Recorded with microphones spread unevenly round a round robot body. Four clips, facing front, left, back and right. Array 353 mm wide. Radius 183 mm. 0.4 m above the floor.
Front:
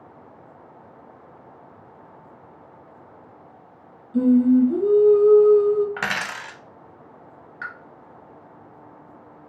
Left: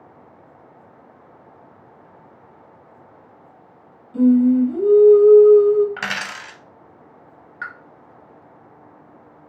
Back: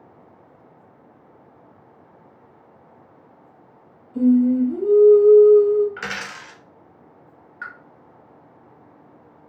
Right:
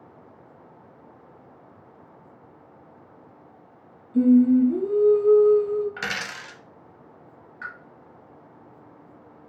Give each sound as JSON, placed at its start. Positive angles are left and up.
{"t": 4.1, "sound": "singing", "azimuth_deg": 35, "distance_m": 1.0}
{"t": 6.0, "sound": "a dropped coin", "azimuth_deg": 25, "distance_m": 0.5}
{"t": 7.6, "sound": "a pop", "azimuth_deg": 80, "distance_m": 1.2}